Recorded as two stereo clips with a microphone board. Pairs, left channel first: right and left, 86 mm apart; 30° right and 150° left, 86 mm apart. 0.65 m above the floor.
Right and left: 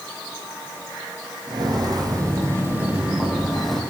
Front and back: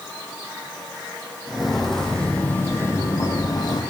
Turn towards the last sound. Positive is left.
turn(degrees=-5)